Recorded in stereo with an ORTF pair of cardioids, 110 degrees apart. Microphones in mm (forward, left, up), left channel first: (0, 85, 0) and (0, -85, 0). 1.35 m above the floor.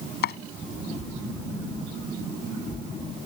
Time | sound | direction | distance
0.2 | chopping | 65° left | ?